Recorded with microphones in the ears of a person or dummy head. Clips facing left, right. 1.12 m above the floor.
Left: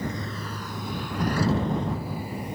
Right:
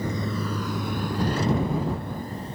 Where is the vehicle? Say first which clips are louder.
Right 4 dB; 80° right; by 2.5 s 15° left (ahead or behind).